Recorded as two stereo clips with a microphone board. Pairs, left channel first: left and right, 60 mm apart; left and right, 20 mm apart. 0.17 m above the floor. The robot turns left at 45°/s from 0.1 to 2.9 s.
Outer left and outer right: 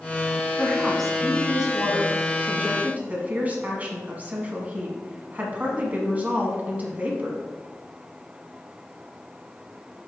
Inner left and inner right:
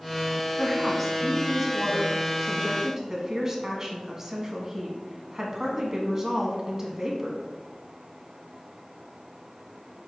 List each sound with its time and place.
0.6 s a woman speaking: 10° left (ahead or behind), 1.5 m; by 7.4 s 25° right (ahead or behind), 1.5 m